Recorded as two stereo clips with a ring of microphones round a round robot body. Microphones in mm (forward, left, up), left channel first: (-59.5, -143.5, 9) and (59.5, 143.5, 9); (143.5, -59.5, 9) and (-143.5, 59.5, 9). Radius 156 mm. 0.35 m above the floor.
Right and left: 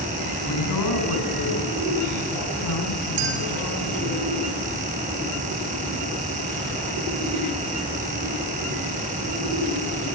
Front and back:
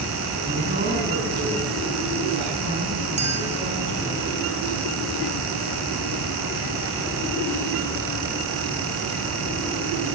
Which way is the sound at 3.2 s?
90° left.